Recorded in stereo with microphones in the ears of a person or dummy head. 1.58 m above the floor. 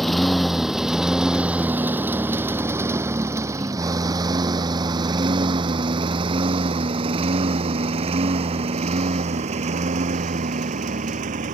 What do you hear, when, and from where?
0.0 s a lawn mower: 5° left (ahead or behind); by 11.5 s 40° right (ahead or behind)